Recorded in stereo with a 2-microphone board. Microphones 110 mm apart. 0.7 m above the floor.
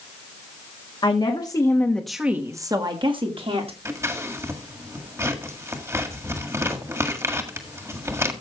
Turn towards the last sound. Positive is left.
turn(degrees=-25)  # may be behind; listen again after turning